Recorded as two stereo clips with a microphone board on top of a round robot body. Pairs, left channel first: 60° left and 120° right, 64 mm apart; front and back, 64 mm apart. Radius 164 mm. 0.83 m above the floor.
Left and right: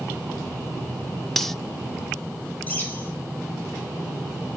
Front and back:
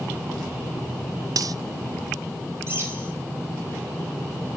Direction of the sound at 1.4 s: 150° left.